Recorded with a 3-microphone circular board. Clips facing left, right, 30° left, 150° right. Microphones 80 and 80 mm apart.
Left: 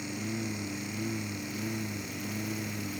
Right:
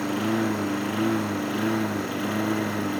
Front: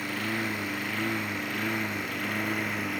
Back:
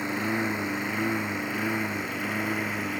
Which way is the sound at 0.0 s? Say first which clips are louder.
Right 11 dB, back 3 dB; 75° right.